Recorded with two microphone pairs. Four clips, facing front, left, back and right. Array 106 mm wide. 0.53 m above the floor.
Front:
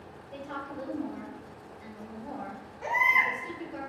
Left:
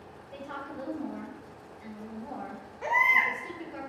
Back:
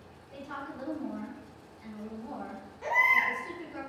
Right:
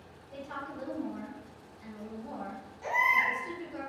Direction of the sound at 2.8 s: 80° left.